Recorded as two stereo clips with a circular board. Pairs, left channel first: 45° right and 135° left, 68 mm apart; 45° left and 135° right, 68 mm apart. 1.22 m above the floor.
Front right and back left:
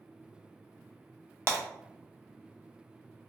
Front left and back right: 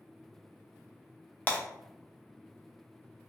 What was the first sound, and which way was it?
Breaking glass, 100° left.